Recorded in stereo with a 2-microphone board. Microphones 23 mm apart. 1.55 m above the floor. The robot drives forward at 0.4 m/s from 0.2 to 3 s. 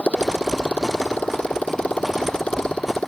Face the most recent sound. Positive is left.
turn(degrees=65)  # may be behind; listen again after turning